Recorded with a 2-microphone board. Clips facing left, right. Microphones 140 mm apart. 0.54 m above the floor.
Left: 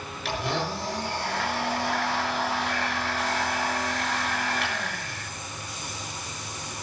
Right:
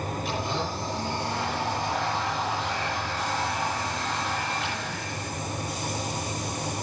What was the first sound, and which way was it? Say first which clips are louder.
A blender: left 4 dB; 85° left.